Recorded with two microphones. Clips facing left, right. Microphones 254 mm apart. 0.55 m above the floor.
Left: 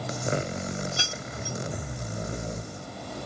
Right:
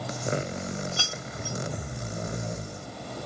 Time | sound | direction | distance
1.0 | keys jangling | 25° left (ahead or behind) | 1.1 m